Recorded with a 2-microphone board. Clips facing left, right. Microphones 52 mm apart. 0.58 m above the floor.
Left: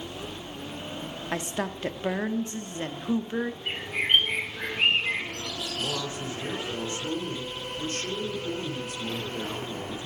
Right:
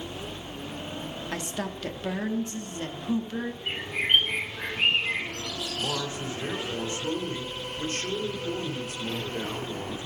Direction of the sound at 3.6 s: 10° left (ahead or behind).